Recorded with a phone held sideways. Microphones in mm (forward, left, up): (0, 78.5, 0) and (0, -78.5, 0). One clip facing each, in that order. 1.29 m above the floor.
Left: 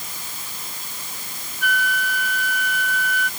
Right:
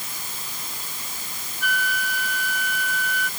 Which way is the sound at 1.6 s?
60° left (ahead or behind).